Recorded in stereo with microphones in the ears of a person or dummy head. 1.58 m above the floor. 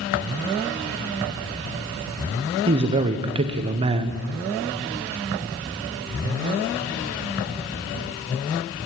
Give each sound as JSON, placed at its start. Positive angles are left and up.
{"t": 2.7, "sound": "a man speaking", "side_deg": -25, "distance_m": 0.6}